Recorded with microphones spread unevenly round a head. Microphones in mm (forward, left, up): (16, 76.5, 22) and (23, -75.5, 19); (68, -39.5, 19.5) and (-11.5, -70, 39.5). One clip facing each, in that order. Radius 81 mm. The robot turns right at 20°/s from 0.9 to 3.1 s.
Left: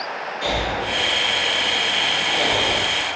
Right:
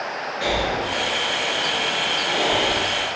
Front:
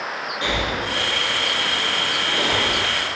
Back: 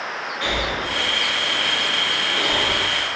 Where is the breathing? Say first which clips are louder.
Right 1 dB, even; 45° right, 1.1 m; by 2.8 s 5° right, 1.1 m.